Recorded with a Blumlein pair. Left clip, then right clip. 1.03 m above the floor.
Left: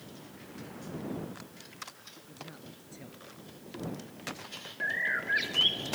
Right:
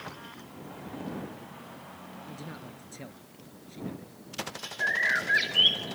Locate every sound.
2.3 s a man speaking: 70° right
4.8 s a bird: 15° right